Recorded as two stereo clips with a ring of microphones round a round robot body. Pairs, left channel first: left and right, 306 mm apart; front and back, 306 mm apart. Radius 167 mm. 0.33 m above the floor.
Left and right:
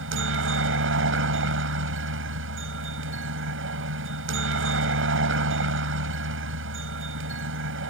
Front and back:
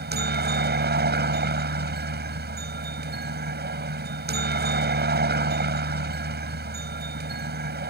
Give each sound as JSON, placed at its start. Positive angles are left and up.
{"t": 0.0, "sound": "a helicopter", "azimuth_deg": -130}